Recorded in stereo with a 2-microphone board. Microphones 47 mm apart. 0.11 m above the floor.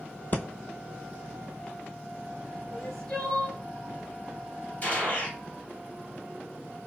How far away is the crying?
About 1.5 m.